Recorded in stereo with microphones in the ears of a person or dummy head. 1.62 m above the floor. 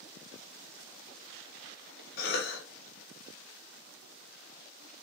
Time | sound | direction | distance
2.2 | a cough | 60° left (ahead or behind) | 1.8 m